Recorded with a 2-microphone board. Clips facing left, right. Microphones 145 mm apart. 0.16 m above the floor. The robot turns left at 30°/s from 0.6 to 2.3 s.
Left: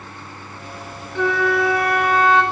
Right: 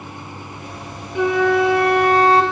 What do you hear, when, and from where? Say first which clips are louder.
1.1 s a flute: right 3 dB; 20° right, 0.6 m; by 2.4 s 55° right, 0.6 m